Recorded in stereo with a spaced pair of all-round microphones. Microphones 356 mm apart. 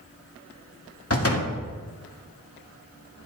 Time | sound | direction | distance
1.1 | a door slam | 40° left (ahead or behind) | 1.9 m